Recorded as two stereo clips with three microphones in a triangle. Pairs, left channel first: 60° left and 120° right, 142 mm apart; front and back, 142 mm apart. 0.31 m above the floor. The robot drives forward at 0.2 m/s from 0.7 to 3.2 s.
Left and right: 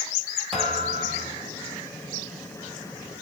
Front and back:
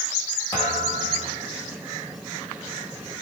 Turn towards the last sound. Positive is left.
turn(degrees=-70)